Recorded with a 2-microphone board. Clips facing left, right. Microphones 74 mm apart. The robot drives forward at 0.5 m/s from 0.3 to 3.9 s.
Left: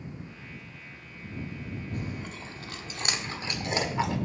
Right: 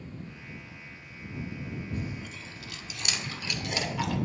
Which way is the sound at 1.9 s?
55° left (ahead or behind).